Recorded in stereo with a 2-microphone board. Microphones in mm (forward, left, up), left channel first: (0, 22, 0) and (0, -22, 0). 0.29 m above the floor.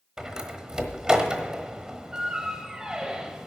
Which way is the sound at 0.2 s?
15° right (ahead or behind).